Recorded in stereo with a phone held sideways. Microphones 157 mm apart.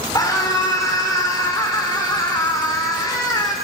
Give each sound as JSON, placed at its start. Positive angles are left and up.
{"t": 0.1, "sound": "a scream", "side_deg": 25, "distance_m": 3.0}